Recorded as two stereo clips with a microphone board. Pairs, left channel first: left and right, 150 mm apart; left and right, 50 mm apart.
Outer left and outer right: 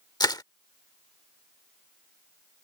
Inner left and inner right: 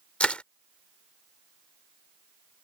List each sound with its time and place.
0.2 s crushing: 25° left (ahead or behind)